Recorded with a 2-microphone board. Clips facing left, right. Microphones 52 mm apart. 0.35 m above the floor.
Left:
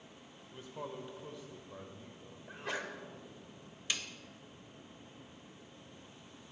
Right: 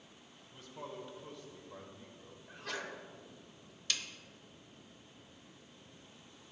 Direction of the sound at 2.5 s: 20° left (ahead or behind).